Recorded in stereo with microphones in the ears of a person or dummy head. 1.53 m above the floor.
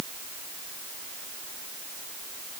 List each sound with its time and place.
Only background noise.